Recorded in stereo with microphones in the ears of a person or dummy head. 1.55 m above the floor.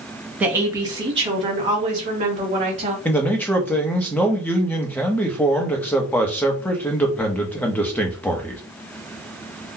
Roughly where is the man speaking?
Centre.